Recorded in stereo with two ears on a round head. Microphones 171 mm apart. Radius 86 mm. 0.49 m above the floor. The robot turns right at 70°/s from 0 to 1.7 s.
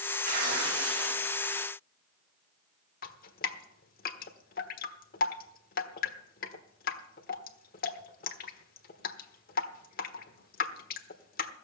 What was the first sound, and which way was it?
Tearing paper, 130° right.